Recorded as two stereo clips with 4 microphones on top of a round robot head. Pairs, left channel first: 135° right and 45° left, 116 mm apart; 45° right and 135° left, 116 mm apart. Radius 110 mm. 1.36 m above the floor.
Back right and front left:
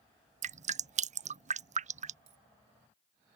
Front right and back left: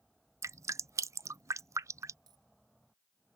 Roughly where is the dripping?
Ahead left.